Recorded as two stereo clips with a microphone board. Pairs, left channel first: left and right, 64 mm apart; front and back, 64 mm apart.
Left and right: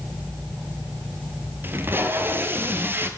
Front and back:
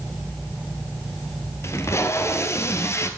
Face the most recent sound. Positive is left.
turn(degrees=-40)